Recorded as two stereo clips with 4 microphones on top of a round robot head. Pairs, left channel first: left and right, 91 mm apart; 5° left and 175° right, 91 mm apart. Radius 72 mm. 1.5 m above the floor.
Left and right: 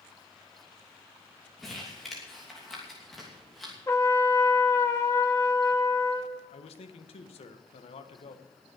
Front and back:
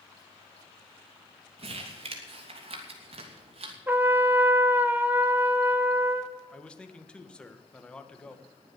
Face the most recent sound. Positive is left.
turn(degrees=85)